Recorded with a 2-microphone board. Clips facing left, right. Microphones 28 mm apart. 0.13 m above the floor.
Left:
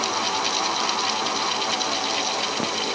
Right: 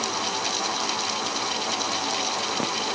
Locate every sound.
Only background noise.